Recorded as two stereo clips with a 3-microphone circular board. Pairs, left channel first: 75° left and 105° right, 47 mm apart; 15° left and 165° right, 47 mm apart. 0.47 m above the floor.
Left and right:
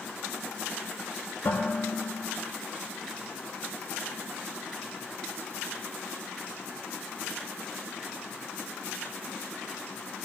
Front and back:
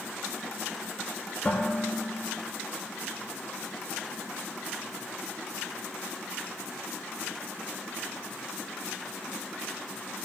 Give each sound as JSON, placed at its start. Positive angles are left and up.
{"t": 1.4, "sound": "dishes clattering", "azimuth_deg": 70, "distance_m": 5.0}